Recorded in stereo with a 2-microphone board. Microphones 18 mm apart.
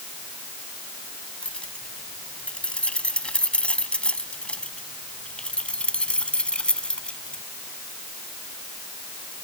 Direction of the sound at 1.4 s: 75° left (ahead or behind).